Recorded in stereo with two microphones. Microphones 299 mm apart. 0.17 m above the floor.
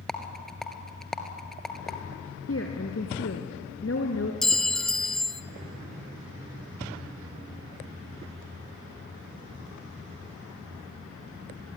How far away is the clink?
About 0.7 m.